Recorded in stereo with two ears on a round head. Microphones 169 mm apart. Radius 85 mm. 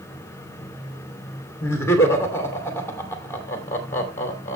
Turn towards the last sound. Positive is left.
turn(degrees=15)  # may be behind; listen again after turning